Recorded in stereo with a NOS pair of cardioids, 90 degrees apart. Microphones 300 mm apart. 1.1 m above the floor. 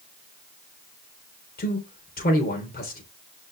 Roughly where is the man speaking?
Ahead left.